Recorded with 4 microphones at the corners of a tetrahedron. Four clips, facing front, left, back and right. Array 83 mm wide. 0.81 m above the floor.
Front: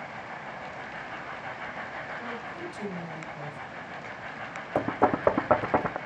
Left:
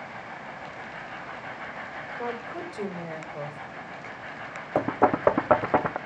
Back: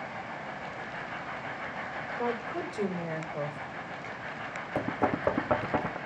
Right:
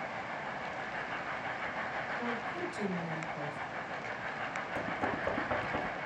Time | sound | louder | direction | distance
2.2 | a woman speaking | left 3 dB, back 4 dB | 155° left | 3.5 m
4.8 | knocking | left 14 dB, front 5 dB | 60° left | 0.6 m